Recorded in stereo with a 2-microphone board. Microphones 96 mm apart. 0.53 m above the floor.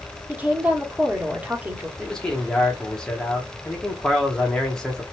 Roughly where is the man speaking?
Centre.